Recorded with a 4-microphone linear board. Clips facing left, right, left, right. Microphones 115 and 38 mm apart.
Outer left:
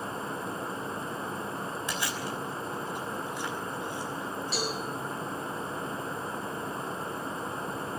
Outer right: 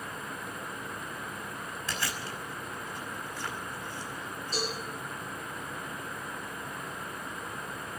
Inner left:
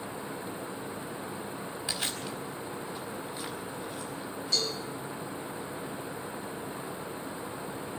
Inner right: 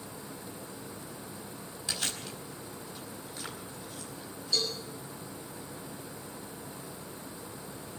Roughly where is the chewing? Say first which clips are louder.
Outer left 3 dB, even; left.